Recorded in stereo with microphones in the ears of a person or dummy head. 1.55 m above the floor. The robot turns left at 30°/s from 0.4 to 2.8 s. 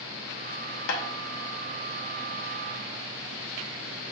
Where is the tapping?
70° left (ahead or behind), 0.7 m.